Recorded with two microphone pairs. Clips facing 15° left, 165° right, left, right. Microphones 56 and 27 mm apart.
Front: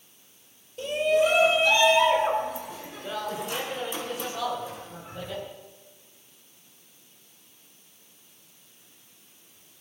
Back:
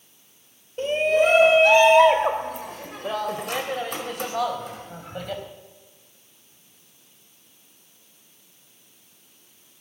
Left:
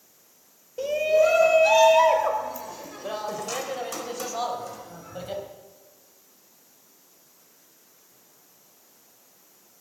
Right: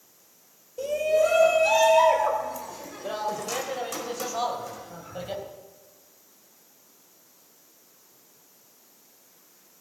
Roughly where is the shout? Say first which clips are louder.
Back 3 dB, left 2 dB; behind left.